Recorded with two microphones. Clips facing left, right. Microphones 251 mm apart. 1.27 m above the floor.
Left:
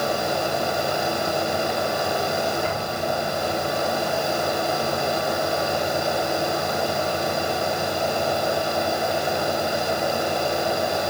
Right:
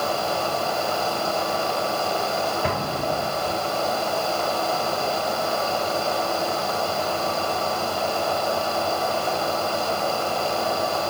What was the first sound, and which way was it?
An explosion, 75° right (ahead or behind).